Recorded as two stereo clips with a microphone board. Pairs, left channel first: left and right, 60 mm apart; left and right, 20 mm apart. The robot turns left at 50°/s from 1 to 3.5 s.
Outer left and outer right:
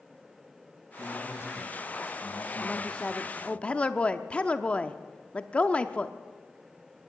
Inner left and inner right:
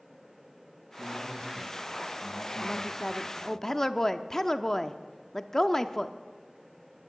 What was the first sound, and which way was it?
A man speaking, 155° left.